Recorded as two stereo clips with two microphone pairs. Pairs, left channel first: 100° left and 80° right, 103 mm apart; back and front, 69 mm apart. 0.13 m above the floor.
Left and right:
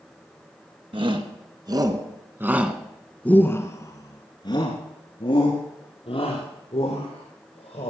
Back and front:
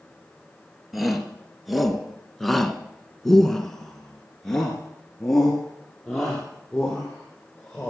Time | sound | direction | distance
0.9 | a shout | 90° right | 2.0 m